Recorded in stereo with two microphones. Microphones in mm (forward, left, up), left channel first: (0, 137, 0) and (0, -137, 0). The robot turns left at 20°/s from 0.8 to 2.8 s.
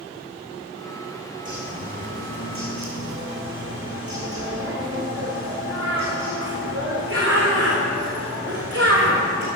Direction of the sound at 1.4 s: 30° right (ahead or behind).